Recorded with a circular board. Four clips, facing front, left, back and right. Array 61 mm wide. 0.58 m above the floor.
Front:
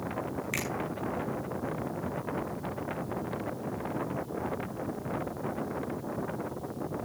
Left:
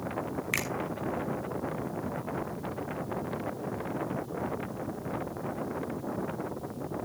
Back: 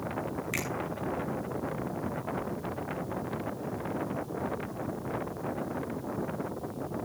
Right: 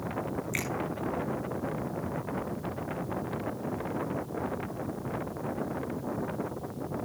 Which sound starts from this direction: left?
A finger snap, at 0.5 s.